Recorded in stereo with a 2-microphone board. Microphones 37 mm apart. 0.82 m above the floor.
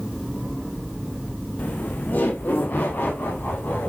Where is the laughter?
45° left (ahead or behind), 0.7 m; by 3.9 s 65° left (ahead or behind), 2.0 m.